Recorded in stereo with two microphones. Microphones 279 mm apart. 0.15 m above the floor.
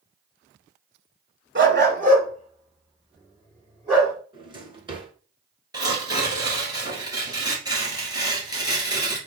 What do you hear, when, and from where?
1.6 s a dog barking: 45° right (ahead or behind), 0.6 m; by 4.1 s 15° right (ahead or behind), 4 m
4.3 s a drawer: 20° right (ahead or behind), 1.1 m
5.7 s tearing paper: 15° right (ahead or behind), 1.5 m